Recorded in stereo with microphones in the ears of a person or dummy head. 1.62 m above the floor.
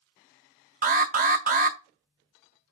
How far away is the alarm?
About 0.6 m.